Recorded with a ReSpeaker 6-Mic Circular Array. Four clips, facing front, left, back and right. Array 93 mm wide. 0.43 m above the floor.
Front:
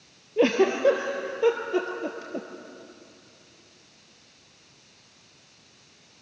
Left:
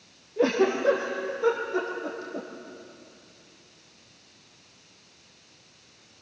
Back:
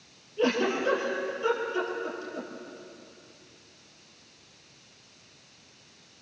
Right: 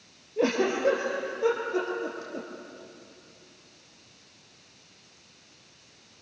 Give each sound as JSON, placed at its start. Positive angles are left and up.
{"t": 0.4, "sound": "a giggle", "azimuth_deg": -5, "distance_m": 3.5}